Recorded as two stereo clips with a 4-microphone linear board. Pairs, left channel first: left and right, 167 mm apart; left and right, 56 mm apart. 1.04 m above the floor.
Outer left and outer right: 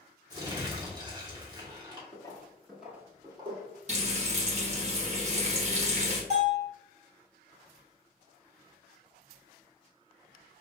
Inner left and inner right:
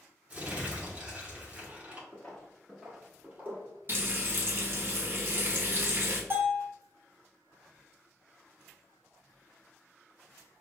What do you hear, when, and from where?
0.3 s crumpling: 25° right (ahead or behind), 1.1 m
2.1 s footsteps: 30° left (ahead or behind), 1.1 m; by 3.8 s 40° right (ahead or behind), 1.4 m
3.9 s frying: 45° right (ahead or behind), 1.0 m
6.3 s a bell: 45° right (ahead or behind), 1.3 m